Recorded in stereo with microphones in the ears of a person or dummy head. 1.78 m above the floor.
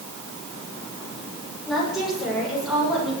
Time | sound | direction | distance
1.7 | a woman speaking | centre (ahead or behind) | 7.5 m